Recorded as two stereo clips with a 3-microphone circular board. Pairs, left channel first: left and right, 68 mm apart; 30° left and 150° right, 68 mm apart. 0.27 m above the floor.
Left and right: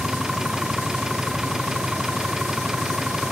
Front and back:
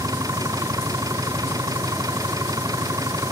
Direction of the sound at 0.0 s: 170° right.